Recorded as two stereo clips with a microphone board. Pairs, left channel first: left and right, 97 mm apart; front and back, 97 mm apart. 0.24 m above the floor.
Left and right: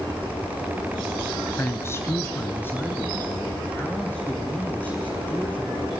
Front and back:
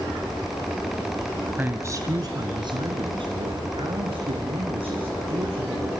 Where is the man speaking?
120° left, 1.1 m; by 5.9 s 165° left, 6 m.